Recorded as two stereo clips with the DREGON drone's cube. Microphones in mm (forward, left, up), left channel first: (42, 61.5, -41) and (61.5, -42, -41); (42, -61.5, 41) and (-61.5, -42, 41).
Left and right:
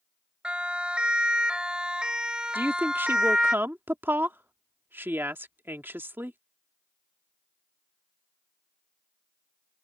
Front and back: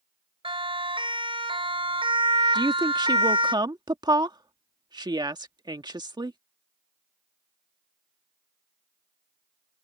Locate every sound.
0.4 s a siren: 160° right
2.5 s a woman speaking: 145° right